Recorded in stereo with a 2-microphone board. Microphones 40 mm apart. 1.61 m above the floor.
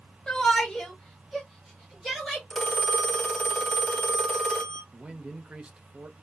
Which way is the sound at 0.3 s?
20° left (ahead or behind).